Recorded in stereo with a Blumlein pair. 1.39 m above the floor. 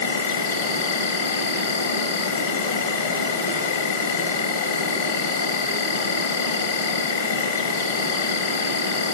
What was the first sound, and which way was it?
An insect, 60° left.